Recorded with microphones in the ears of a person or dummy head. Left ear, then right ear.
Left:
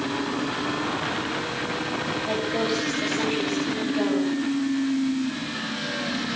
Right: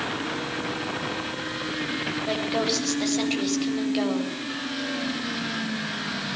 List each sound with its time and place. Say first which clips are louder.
2.3 s a woman speaking: right 1 dB; 35° right (ahead or behind), 7.5 m